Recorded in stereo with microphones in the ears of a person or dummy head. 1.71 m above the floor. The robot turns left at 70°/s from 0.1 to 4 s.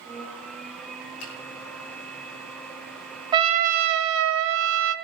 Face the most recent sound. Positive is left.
turn(degrees=-75)